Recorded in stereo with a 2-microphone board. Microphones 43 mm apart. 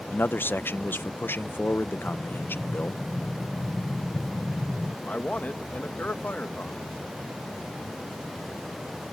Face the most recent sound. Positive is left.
turn(degrees=40)  # may be behind; listen again after turning